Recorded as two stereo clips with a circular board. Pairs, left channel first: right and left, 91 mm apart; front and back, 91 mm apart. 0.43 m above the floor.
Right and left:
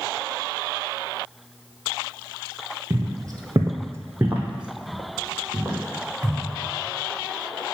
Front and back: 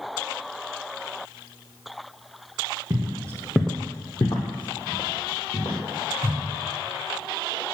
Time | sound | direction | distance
2.9 | footsteps | 145° left | 0.9 m